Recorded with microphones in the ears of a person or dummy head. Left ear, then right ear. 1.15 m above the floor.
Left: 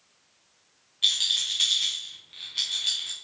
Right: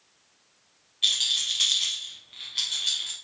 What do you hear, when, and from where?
1.0 s a rattle: centre (ahead or behind), 0.9 m